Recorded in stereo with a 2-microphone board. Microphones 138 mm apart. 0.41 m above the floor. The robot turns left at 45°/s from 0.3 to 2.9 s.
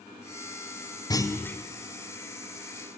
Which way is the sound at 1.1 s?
25° left (ahead or behind).